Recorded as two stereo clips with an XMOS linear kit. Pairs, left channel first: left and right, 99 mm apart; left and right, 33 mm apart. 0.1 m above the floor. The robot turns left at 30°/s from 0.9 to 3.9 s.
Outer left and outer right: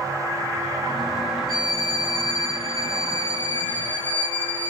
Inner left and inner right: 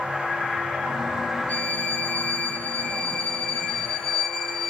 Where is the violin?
95° left, 0.7 m; by 4.7 s 25° left, 0.7 m.